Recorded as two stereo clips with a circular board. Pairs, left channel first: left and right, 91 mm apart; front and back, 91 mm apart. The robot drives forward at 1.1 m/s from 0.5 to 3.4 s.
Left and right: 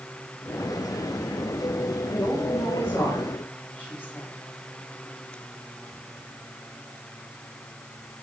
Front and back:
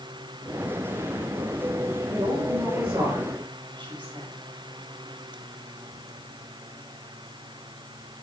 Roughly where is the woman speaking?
Behind left.